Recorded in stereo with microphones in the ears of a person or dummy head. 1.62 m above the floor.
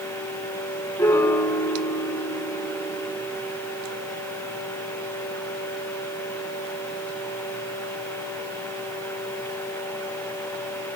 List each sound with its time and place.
1.0 s a piano: 20° left (ahead or behind), 5 m